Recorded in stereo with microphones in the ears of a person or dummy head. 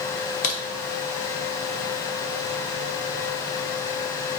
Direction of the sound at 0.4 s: 35° left (ahead or behind).